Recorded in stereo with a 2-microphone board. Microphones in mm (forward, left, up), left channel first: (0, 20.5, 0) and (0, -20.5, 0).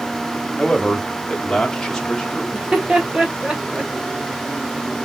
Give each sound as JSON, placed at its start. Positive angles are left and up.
{"t": 0.6, "sound": "a man speaking", "side_deg": 15, "distance_m": 0.8}
{"t": 2.5, "sound": "laughter", "side_deg": -20, "distance_m": 1.1}